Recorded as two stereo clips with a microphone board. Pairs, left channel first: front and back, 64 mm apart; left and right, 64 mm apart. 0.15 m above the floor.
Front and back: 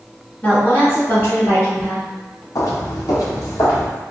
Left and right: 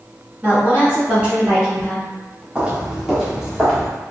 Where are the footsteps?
20° right, 0.8 m; by 3.9 s 5° left, 1.5 m.